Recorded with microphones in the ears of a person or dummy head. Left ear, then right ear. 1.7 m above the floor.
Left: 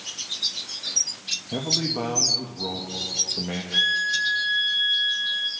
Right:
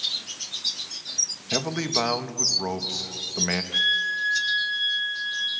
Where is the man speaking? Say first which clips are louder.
Even; 55° right (ahead or behind), 2 m.